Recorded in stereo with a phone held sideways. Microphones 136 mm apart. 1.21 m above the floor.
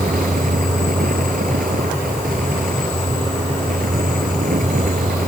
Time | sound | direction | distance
0.0 | a fan | 85° right | ?